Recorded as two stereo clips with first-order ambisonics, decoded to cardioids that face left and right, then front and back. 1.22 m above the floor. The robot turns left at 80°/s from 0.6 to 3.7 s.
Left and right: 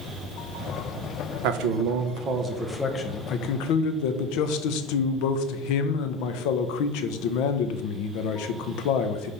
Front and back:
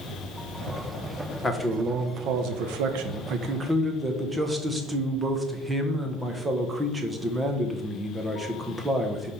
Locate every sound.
1.4 s a man speaking: 75° right, 1.1 m; by 9.3 s 100° left, 1.1 m